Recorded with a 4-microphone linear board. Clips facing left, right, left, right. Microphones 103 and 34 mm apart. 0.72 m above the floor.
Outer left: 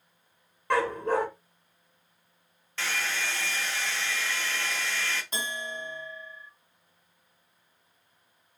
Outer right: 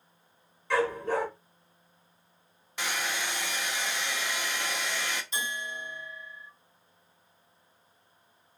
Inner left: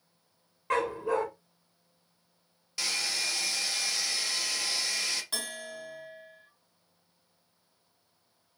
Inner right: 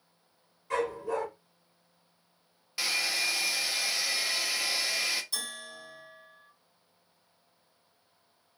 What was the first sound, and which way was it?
A dog barking, 55° left (ahead or behind).